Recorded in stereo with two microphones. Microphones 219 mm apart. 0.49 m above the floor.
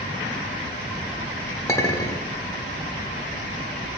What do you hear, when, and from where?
1.7 s a clink: 15° left (ahead or behind), 1.1 m